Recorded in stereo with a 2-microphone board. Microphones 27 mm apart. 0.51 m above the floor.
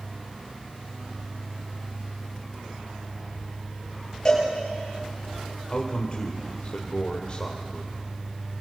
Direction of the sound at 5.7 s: 35° left (ahead or behind).